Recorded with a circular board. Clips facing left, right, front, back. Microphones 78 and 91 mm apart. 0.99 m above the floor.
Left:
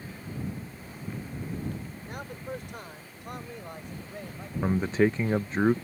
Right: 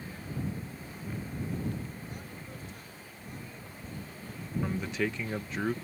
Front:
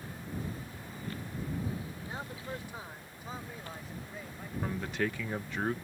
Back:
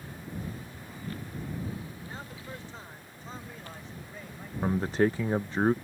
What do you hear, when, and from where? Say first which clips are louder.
2.0 s a man speaking: left 6 dB, front 2 dB; 70° left; by 4.5 s 90° left
4.6 s a man speaking: left 9 dB, back 8 dB; 135° left